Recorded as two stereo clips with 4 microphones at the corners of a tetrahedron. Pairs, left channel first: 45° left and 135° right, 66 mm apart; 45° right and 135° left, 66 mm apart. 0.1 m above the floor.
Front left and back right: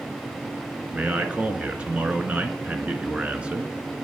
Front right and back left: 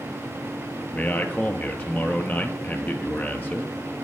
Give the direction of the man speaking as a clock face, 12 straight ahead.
3 o'clock.